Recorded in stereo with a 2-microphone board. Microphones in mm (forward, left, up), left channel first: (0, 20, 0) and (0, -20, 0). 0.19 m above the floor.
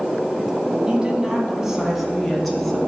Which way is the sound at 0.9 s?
25° right (ahead or behind).